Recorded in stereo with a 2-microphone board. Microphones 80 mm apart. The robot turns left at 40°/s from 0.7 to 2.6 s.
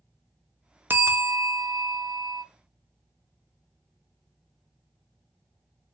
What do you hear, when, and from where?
0.9 s a bell: 25° right, 0.5 m; by 2.4 s 85° right, 0.5 m